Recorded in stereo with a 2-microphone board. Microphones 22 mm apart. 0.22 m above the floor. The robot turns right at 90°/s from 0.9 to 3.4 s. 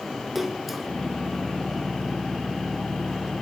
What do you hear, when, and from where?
0.3 s a splash: 10° right (ahead or behind), 0.5 m